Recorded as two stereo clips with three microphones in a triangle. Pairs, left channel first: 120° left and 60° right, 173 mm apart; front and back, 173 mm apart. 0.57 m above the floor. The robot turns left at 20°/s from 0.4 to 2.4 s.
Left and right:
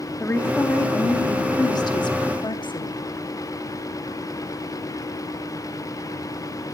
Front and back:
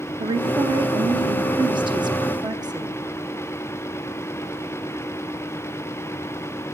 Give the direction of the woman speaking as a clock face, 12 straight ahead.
6 o'clock.